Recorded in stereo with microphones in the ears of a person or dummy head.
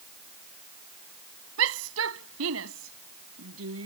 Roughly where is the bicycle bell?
No bicycle bell in this recording.